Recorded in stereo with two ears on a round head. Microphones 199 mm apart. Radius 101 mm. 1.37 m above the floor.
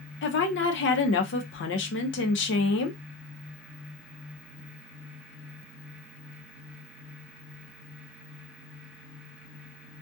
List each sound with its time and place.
0.2 s a woman speaking: 55° left (ahead or behind), 0.6 m